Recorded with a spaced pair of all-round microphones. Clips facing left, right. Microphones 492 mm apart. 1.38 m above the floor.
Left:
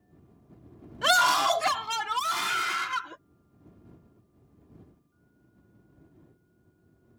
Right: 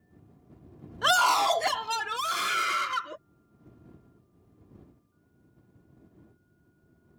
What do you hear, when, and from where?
1.0 s a scream: 50° left (ahead or behind); by 3.2 s 10° left (ahead or behind)